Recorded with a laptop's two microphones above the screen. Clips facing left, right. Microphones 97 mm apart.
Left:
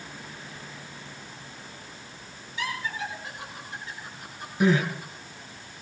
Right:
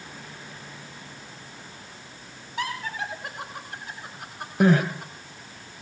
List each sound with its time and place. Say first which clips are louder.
2.6 s laughter: right 1 dB; 60° right (ahead or behind), 4.5 m; by 5.1 s 75° right (ahead or behind), 7 m
4.6 s crying: right 3 dB; 60° right (ahead or behind), 1.8 m